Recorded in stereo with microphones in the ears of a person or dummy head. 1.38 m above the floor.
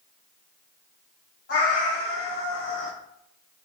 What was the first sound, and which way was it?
A cat meowing, 50° left (ahead or behind).